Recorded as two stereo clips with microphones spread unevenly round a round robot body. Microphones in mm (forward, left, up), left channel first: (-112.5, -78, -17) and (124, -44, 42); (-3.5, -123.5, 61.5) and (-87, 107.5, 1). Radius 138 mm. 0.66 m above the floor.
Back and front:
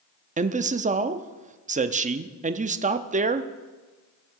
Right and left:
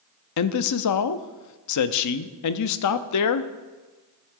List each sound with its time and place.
0.4 s a man speaking: 60° right, 0.7 m